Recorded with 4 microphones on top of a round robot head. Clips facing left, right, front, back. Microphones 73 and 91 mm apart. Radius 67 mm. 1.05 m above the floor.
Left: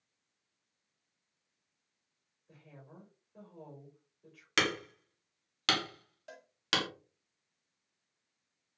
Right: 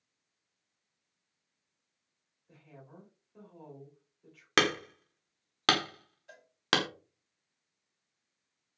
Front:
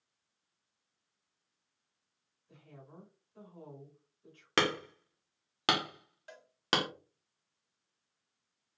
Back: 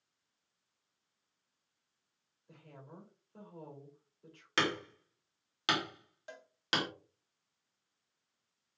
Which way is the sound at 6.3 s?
115° left.